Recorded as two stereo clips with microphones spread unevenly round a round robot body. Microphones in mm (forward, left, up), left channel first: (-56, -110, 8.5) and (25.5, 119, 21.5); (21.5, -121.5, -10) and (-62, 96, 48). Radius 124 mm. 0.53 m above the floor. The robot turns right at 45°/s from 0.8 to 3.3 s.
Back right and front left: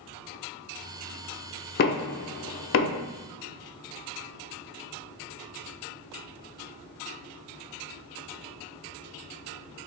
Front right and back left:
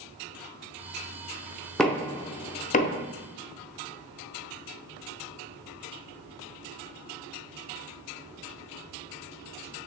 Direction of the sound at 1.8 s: 145° right.